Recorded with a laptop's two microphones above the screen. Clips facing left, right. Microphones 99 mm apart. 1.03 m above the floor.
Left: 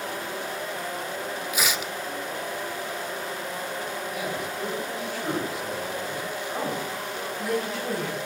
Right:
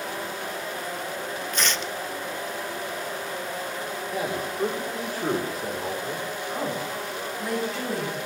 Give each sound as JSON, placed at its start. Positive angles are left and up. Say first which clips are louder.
{"t": 1.5, "sound": "tearing paper", "louder": "even", "side_deg": 10, "distance_m": 0.7}
{"t": 4.1, "sound": "a man speaking", "louder": "right 2 dB", "side_deg": -45, "distance_m": 4.0}
{"t": 6.5, "sound": "a woman speaking", "louder": "right 1 dB", "side_deg": 5, "distance_m": 9.5}